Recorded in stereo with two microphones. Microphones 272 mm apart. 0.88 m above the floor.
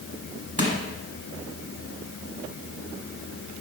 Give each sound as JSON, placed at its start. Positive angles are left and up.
{"t": 0.6, "sound": "crushing", "side_deg": -25, "distance_m": 1.3}